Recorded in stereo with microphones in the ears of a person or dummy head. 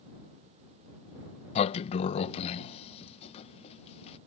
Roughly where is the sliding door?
Left.